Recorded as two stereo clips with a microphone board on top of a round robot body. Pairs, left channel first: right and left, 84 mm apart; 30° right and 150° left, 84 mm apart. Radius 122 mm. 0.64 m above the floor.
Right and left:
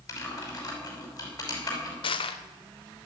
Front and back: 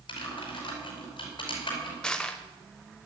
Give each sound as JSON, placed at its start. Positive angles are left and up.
{"t": 0.1, "sound": "typing on a keyboard", "azimuth_deg": -50, "distance_m": 5.5}
{"t": 2.0, "sound": "crushing", "azimuth_deg": -110, "distance_m": 0.8}